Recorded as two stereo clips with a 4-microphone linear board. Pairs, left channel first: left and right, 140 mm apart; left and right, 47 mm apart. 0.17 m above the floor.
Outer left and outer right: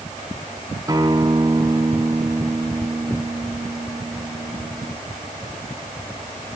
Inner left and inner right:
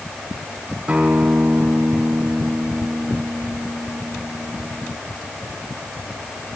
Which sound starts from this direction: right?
A guitar, at 0.9 s.